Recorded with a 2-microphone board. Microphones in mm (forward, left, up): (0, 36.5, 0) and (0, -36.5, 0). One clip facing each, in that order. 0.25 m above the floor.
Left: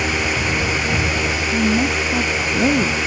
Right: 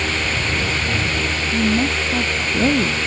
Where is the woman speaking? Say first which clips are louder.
Even; centre (ahead or behind).